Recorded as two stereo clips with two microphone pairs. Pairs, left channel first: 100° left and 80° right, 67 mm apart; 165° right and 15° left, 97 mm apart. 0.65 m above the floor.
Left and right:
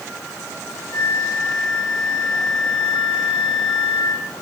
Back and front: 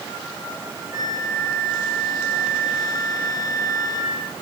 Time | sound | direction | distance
0.9 | a flute | 70° left | 3.5 m